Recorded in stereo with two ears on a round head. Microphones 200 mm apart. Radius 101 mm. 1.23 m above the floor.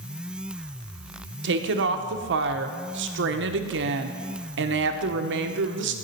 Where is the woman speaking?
55° right (ahead or behind), 0.9 m.